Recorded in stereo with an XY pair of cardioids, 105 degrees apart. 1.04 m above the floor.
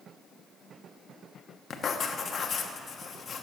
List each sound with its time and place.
1.7 s writing: 45° left, 0.9 m